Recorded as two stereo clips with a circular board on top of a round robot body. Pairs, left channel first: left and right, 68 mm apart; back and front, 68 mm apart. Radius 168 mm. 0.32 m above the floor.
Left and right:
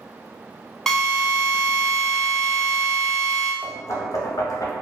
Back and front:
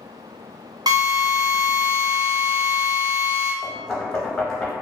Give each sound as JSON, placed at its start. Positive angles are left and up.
{"t": 0.9, "sound": "a drill", "azimuth_deg": 5, "distance_m": 0.8}
{"t": 3.6, "sound": "knocking", "azimuth_deg": 100, "distance_m": 0.9}